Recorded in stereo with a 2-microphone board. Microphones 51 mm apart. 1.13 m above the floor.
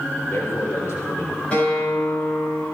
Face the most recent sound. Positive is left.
turn(degrees=25)  # may be behind; listen again after turning